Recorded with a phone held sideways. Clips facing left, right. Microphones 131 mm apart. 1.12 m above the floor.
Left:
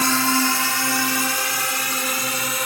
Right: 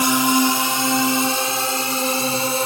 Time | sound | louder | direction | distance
0.0 | a drone | right 4 dB | 15° right (ahead or behind) | ?